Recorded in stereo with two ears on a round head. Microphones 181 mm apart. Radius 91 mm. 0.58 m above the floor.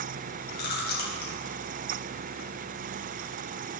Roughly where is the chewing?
Left.